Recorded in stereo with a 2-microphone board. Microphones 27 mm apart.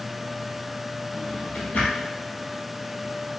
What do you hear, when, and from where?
1.1 s a drawer: 85° left, 1.6 m